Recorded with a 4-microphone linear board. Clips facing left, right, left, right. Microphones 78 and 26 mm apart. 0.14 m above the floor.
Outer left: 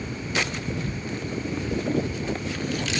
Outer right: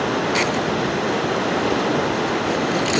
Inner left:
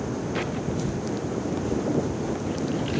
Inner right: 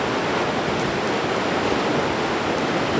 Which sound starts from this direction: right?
Running water, at 0.0 s.